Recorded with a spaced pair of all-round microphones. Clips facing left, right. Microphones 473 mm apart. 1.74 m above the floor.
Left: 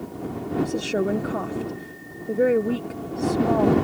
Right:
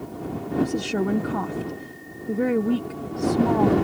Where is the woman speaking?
15° right (ahead or behind).